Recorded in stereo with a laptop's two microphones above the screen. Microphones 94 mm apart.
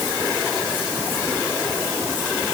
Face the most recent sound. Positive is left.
No sound to turn to.